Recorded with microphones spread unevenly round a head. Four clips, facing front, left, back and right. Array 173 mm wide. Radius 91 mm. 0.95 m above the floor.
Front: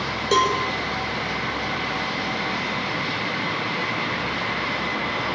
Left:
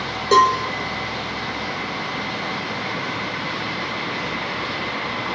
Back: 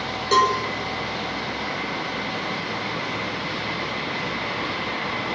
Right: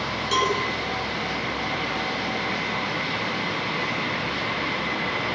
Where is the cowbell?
70° left, 5 m.